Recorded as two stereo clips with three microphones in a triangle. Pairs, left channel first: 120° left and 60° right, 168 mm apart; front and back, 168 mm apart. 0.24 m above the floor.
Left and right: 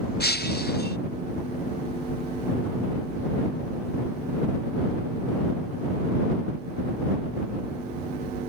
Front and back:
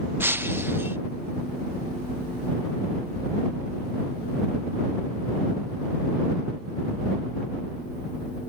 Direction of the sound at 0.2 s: 105° left.